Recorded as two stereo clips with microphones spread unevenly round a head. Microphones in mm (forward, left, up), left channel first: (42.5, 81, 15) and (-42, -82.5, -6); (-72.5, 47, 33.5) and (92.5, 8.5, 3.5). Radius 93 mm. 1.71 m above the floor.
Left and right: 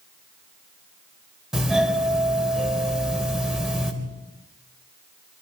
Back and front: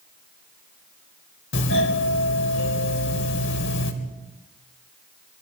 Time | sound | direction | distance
1.5 | a doorbell | 155° left | 3.5 m